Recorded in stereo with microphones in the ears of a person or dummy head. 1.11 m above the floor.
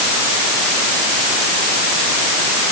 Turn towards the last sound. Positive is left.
No sound to turn to.